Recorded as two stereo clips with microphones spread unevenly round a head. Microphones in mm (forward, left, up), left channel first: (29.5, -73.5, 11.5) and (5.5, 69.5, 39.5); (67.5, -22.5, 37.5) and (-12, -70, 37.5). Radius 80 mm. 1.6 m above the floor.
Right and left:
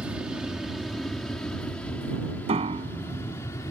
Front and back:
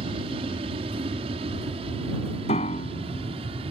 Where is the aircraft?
175° right; by 3.7 s 150° right.